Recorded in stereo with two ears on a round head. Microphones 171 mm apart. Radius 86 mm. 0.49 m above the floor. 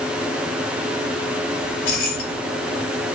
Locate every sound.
1.6 s keys jangling: 60° left (ahead or behind), 1.2 m